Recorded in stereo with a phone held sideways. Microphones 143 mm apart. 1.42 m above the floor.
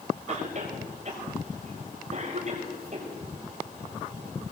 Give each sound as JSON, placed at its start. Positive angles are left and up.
{"t": 0.3, "sound": "a cough", "side_deg": -45, "distance_m": 6.0}